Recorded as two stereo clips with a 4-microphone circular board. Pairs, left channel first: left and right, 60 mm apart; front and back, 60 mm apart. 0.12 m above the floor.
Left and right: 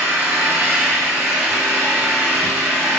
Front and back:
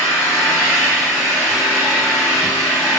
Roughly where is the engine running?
Ahead right.